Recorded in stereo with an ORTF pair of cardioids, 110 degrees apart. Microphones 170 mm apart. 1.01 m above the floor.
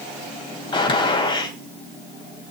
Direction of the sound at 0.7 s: 30° left.